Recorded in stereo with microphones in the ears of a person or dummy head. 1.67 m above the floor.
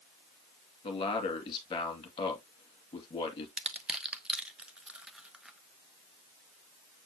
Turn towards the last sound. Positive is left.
turn(degrees=-5)  # may be behind; listen again after turning